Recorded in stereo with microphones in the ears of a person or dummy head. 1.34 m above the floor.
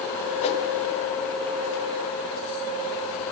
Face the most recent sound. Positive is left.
turn(degrees=30)  # may be behind; listen again after turning